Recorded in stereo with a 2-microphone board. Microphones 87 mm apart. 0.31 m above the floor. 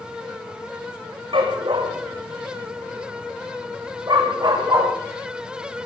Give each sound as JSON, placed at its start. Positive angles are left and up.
{"t": 1.3, "sound": "a dog barking", "side_deg": -70, "distance_m": 4.0}